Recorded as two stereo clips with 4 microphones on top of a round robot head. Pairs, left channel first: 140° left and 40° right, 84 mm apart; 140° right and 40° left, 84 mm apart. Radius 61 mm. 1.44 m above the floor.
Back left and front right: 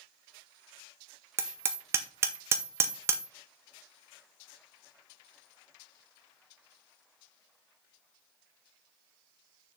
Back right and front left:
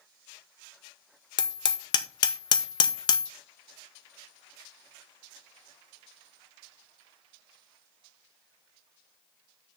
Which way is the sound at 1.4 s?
100° right.